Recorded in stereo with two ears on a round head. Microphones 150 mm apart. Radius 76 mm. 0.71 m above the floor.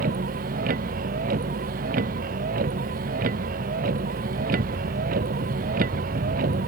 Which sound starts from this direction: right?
A vehicle, at 0.0 s.